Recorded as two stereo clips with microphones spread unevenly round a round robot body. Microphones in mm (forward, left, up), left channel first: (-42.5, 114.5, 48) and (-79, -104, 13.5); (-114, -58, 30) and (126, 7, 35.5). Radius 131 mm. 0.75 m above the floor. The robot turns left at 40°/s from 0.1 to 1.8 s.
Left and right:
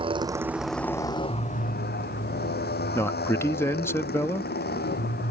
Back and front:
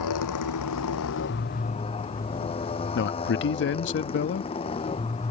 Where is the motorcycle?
165° right; by 5.3 s 125° left.